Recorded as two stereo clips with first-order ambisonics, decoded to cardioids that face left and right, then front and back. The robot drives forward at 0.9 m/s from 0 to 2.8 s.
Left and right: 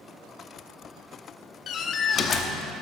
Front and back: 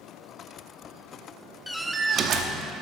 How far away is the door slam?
About 0.6 m.